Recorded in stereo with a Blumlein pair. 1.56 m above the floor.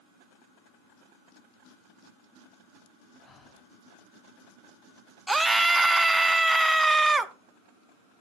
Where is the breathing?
15° left, 0.9 m.